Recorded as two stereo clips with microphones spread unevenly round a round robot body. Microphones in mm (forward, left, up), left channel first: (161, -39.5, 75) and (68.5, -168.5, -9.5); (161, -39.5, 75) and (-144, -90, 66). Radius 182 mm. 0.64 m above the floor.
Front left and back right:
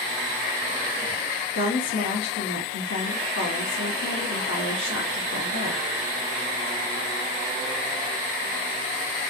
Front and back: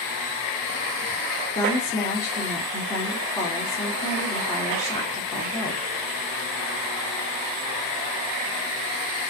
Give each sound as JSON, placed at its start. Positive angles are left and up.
{"t": 1.5, "sound": "a woman speaking", "azimuth_deg": 90, "distance_m": 1.6}